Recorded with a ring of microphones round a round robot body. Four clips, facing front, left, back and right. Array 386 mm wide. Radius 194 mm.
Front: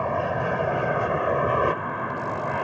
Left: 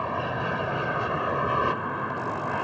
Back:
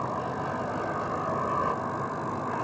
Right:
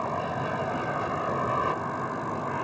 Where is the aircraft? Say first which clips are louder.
Left 1 dB, front 6 dB; 10° left.